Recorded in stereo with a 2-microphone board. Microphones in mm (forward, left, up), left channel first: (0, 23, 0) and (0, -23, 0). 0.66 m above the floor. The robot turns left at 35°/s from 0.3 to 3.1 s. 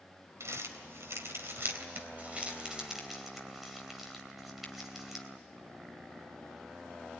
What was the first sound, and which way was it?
Crumpling, 75° right (ahead or behind).